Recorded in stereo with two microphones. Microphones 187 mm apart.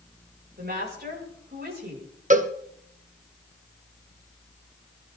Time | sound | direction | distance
0.6 | a woman speaking | 60° right (ahead or behind) | 7 m
2.3 | a cowbell | 40° right (ahead or behind) | 1.2 m